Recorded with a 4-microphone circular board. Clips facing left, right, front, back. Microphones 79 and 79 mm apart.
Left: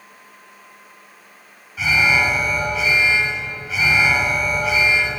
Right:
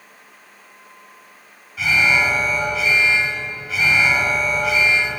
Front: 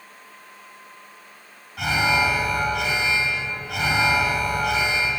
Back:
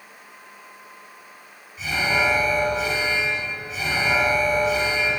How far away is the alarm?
About 6.5 m.